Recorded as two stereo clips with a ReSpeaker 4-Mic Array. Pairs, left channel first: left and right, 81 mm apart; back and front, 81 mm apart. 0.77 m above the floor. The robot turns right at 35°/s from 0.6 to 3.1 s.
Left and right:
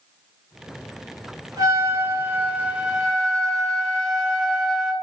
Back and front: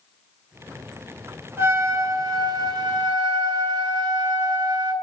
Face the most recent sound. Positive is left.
turn(degrees=-5)